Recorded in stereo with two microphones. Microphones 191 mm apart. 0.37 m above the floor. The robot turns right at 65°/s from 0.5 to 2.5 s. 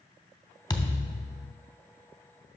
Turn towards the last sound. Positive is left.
turn(degrees=140)